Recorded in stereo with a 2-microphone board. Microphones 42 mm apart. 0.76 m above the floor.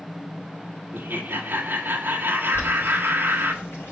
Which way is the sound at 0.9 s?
55° right (ahead or behind).